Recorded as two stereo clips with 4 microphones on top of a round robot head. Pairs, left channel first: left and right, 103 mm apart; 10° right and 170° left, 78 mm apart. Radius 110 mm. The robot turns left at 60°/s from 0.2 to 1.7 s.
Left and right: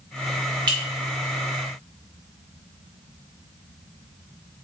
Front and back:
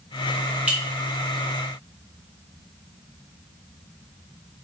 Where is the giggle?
I don't hear a giggle.